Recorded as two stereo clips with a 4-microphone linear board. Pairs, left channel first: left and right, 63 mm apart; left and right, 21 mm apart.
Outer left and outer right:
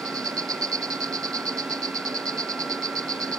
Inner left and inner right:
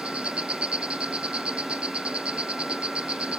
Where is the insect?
75° right (ahead or behind).